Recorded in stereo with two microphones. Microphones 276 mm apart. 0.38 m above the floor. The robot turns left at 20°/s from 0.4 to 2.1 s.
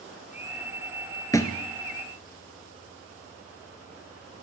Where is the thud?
10° left (ahead or behind), 0.8 m; by 1.6 s 5° left (ahead or behind), 0.8 m.